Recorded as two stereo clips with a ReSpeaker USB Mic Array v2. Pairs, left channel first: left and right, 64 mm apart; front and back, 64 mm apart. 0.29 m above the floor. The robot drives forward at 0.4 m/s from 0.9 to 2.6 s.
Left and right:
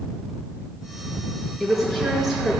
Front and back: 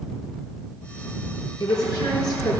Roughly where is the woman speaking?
Ahead.